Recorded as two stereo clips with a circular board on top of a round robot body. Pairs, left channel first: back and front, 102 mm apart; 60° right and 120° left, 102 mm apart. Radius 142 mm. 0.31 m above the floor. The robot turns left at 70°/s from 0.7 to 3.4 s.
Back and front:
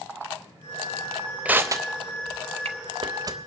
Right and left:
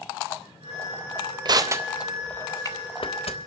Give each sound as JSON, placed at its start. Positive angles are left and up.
{"t": 1.4, "sound": "crushing", "azimuth_deg": 80, "distance_m": 0.8}